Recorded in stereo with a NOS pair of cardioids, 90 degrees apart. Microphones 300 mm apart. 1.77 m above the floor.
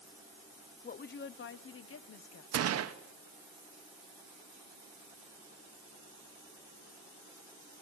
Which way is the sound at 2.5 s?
55° right.